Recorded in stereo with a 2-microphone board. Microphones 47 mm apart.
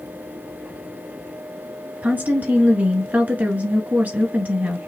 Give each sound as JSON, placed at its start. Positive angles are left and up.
{"t": 2.0, "sound": "a woman speaking", "side_deg": -35, "distance_m": 1.9}